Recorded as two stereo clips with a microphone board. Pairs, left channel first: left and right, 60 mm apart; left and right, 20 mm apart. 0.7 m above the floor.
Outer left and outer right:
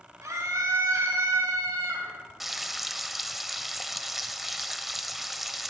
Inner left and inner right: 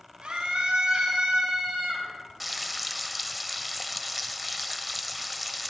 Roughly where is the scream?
Right.